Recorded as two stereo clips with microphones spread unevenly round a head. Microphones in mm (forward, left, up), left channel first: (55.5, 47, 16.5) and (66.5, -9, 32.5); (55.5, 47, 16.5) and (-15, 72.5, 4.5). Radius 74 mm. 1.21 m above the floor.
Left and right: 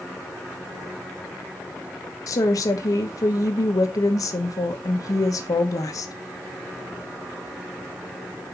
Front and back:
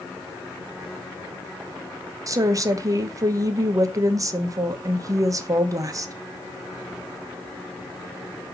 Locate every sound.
2.3 s a woman speaking: 120° left, 1.1 m